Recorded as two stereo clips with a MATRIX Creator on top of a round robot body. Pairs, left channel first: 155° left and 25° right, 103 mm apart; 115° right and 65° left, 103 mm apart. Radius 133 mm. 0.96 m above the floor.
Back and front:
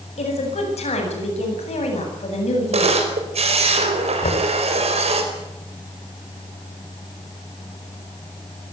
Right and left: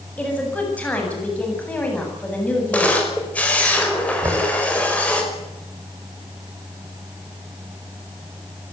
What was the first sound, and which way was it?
A woman speaking, 170° left.